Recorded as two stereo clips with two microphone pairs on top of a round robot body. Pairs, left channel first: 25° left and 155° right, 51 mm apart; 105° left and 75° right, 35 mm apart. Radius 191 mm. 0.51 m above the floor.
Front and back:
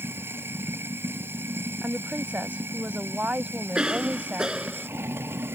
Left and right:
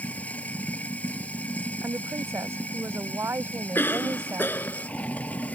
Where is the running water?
155° left.